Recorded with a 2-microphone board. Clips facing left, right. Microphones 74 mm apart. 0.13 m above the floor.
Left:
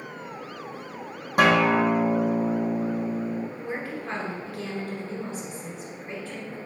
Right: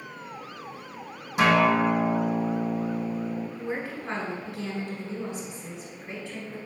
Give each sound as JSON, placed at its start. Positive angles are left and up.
{"t": 1.4, "sound": "a guitar", "side_deg": 50, "distance_m": 1.0}
{"t": 3.6, "sound": "a woman speaking", "side_deg": -5, "distance_m": 1.2}